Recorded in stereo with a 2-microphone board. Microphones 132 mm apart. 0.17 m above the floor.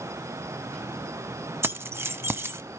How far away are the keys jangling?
About 0.7 m.